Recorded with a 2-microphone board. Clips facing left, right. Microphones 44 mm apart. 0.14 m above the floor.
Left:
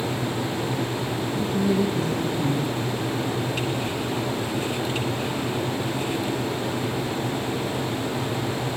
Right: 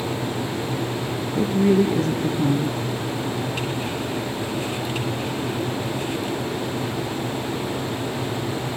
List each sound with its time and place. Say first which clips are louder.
1.4 s a woman speaking: right 6 dB; 55° right (ahead or behind), 1.7 m